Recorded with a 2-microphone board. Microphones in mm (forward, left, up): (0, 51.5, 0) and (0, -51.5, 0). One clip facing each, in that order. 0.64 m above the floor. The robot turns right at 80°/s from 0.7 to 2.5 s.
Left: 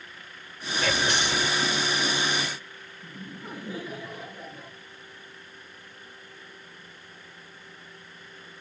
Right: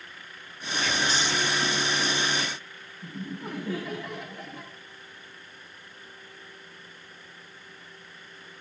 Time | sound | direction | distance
0.8 | whispering | 90° left | 1.8 m
3.0 | laughter | 70° right (ahead or behind) | 7 m